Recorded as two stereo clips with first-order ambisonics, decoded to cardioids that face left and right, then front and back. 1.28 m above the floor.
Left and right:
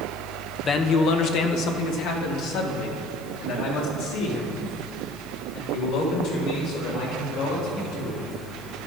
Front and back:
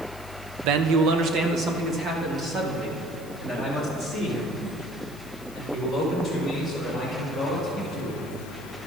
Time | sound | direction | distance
0.6 | a man speaking | 160° left | 0.5 m